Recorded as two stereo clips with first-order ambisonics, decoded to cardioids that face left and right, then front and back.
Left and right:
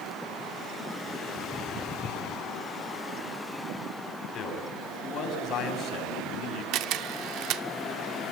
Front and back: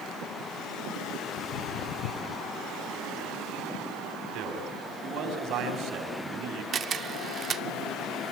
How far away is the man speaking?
About 4 m.